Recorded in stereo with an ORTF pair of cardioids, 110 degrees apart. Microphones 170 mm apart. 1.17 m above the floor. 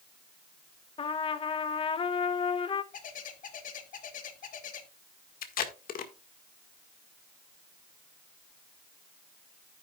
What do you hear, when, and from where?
1.0 s a trumpet: 30° left, 0.9 m
2.9 s a bird: 50° left, 1.8 m
5.4 s tape being pulled: 60° left, 1.7 m